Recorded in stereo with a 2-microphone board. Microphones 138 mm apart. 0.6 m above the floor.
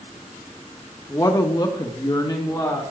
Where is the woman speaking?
25° left (ahead or behind), 1.0 m.